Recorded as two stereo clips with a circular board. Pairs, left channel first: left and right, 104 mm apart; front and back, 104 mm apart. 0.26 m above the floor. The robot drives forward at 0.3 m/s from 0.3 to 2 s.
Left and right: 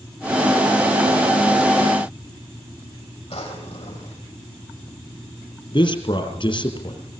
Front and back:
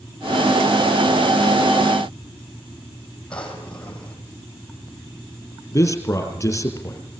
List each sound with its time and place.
3.3 s a drawer: 80° left, 5.5 m
5.7 s a man speaking: 60° left, 4 m